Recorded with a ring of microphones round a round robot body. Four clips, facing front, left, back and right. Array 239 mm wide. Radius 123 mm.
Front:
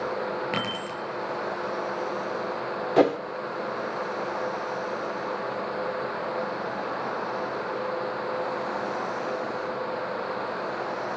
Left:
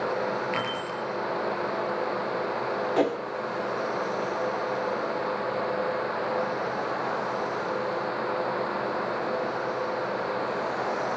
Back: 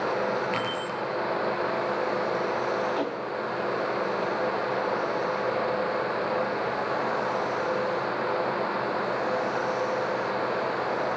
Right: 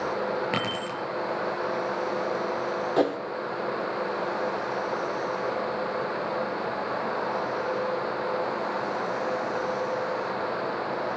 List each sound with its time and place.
0.5 s keys jangling: 60° right, 6 m
3.0 s a whoosh: 5° right, 1.1 m